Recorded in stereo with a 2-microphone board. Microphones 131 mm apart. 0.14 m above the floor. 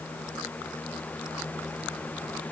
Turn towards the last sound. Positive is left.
No sound to turn to.